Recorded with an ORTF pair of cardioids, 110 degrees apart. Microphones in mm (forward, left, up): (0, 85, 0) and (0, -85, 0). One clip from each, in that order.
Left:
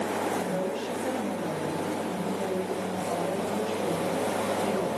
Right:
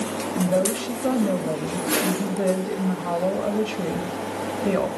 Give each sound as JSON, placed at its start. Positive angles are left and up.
{"t": 0.3, "sound": "a woman speaking", "azimuth_deg": -70, "distance_m": 1.6}